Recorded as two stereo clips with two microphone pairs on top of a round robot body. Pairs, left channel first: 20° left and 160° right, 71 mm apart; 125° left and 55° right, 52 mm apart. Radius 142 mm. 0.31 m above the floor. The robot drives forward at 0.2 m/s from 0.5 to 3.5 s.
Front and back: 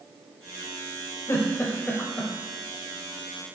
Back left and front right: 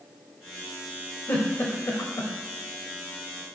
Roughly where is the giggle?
Left.